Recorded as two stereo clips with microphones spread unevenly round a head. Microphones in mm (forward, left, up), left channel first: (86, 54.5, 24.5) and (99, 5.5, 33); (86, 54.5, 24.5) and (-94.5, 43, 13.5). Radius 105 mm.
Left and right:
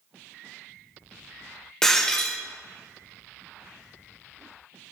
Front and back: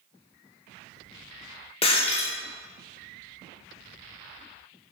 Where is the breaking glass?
20° left, 0.9 m.